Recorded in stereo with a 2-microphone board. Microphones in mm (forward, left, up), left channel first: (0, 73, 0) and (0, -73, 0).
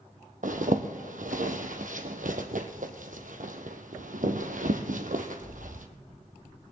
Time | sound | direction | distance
0.4 | a zipper | 65° right (ahead or behind) | 1.2 m